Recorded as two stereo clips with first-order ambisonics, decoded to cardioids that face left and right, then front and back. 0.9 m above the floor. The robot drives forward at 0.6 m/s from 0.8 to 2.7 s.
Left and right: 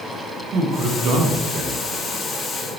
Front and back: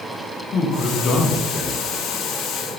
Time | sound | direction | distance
0.5 | a man speaking | 50° right | 0.8 m